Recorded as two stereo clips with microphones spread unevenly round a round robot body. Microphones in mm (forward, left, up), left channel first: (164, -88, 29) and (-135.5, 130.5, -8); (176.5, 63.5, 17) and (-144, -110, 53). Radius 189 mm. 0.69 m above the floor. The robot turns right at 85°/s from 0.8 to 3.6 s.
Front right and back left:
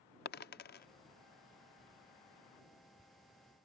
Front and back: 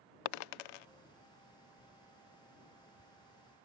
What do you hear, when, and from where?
0.2 s a dropped coin: 30° left; by 0.8 s 35° left